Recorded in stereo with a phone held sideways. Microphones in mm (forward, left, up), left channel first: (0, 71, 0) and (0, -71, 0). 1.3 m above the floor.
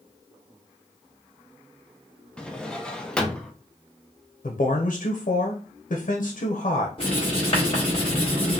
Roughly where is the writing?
Left.